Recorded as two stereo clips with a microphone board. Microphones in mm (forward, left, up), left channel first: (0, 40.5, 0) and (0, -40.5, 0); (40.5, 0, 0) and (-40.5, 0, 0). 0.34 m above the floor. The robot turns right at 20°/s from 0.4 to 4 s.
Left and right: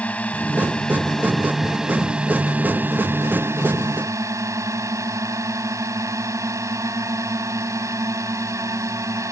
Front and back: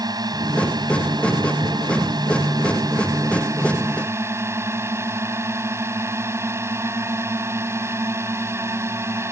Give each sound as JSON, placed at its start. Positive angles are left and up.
{"t": 0.0, "sound": "a drone", "azimuth_deg": 160}